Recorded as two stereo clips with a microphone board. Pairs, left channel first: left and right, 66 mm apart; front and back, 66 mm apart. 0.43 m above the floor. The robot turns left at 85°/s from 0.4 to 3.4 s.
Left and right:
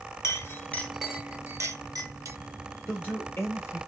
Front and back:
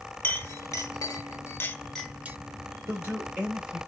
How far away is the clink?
About 0.7 m.